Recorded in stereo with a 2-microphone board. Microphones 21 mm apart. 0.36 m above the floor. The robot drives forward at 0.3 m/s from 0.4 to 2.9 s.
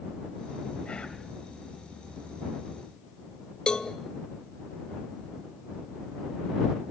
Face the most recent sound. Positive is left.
turn(degrees=40)  # may be behind; listen again after turning